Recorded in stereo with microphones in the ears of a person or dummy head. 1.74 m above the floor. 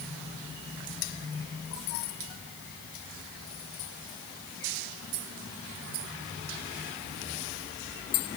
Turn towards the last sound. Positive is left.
No sound to turn to.